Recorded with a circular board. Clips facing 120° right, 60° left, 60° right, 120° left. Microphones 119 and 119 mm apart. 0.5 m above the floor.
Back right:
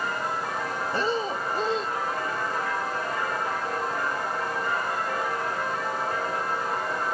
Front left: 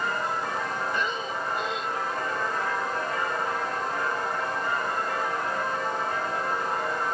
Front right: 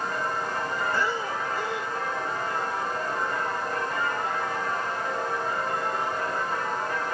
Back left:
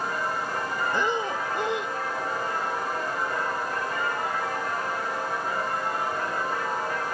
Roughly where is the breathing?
Behind.